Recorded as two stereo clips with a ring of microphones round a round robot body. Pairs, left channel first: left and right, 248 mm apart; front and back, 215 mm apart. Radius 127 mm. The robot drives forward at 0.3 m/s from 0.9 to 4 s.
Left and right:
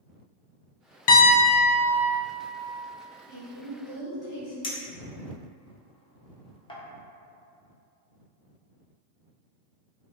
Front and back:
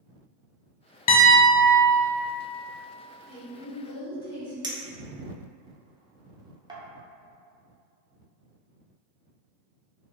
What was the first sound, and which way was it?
A piano, 50° left.